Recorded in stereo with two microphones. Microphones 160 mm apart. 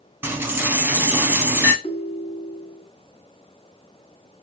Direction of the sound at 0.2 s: 15° right (ahead or behind).